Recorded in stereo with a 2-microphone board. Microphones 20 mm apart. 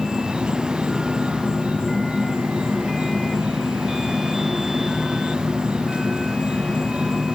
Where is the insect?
65° right (ahead or behind), 4 m.